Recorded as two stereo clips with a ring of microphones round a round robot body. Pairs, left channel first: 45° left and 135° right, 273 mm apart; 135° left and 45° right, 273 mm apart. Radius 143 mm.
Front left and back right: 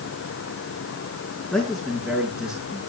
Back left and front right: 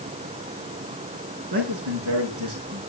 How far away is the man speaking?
About 6.5 m.